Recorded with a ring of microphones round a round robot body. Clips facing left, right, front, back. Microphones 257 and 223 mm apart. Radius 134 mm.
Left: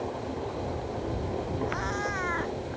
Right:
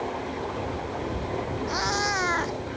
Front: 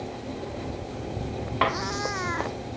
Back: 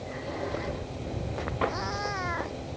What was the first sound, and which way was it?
A cat meowing, 55° right.